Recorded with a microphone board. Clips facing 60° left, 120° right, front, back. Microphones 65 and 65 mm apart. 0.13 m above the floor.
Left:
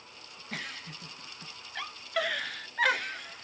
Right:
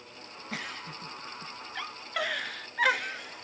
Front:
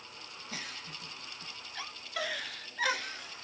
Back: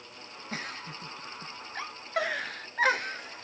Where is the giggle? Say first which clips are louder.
Right 2 dB, back 6 dB; 155° left, 0.5 m.